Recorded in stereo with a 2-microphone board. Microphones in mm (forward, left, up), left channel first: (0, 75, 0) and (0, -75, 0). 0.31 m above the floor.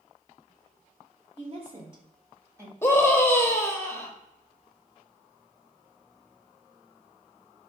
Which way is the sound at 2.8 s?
15° left (ahead or behind).